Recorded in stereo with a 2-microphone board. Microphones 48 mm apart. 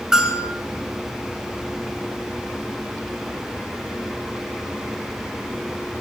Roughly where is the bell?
Centre.